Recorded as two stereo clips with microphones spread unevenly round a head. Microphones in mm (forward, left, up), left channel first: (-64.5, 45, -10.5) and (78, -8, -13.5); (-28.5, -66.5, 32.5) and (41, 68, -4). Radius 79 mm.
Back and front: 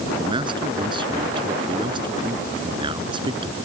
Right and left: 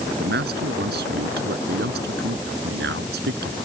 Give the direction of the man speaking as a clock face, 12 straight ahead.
11 o'clock.